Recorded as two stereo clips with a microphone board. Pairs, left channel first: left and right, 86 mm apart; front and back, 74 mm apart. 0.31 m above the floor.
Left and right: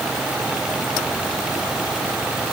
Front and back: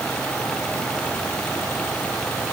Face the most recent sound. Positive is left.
No sound to turn to.